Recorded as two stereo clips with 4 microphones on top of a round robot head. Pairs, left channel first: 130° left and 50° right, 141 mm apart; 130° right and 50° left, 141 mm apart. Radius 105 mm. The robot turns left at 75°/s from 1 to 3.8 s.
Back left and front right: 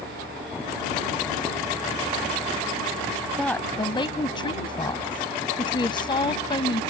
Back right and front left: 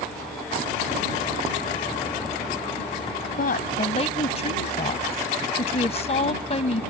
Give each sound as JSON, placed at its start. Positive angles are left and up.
{"t": 3.4, "sound": "a woman speaking", "azimuth_deg": -140}